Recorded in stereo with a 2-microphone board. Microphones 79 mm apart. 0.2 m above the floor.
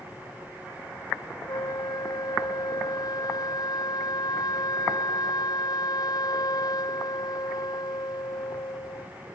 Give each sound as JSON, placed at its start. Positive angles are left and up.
{"t": 1.5, "sound": "a flute", "side_deg": 55}